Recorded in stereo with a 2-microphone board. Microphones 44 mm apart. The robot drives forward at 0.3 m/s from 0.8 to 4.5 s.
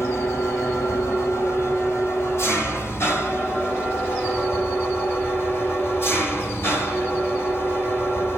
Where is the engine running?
75° left (ahead or behind), 2.5 m; by 8.4 s 55° left (ahead or behind), 3 m.